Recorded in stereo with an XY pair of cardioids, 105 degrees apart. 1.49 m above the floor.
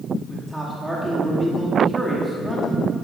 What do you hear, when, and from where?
0.3 s a man speaking: 5° right, 2.5 m